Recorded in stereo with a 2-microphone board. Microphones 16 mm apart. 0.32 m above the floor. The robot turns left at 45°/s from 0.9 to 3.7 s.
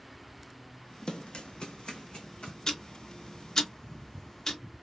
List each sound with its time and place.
1.1 s running footsteps: 70° left (ahead or behind), 0.7 m; by 2.5 s 55° left (ahead or behind), 1.3 m
2.7 s ticking: 40° left (ahead or behind), 1.0 m; by 4.6 s 25° left (ahead or behind), 1.0 m